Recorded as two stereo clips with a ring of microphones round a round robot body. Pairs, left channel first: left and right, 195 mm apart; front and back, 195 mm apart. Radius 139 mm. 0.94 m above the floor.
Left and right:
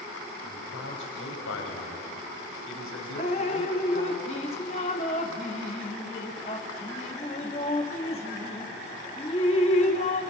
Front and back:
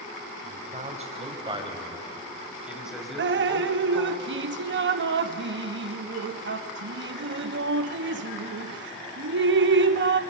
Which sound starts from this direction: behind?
Dripping, at 3.2 s.